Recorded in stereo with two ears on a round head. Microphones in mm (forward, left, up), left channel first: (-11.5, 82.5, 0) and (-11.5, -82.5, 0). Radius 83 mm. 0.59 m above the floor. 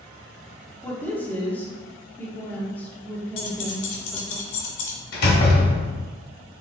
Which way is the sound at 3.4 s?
70° left (ahead or behind).